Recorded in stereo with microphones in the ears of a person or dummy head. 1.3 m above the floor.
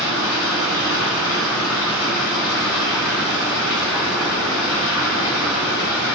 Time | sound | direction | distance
0.0 | running water | 80° left | 6 m